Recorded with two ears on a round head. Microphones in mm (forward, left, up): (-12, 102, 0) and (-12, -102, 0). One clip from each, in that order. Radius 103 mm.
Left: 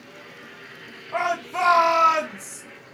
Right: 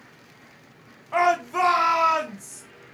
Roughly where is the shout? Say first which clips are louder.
Right 4 dB; centre.